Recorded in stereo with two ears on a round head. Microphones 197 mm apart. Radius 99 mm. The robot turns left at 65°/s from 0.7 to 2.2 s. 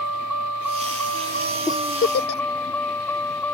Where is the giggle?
15° left (ahead or behind); by 2.4 s 50° left (ahead or behind).